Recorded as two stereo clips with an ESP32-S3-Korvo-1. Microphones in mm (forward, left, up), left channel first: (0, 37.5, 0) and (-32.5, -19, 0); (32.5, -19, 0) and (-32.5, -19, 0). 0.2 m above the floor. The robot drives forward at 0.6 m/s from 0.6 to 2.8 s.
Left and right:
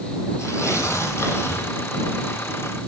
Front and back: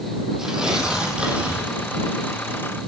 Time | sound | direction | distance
0.4 | tearing paper | 100° left | 4 m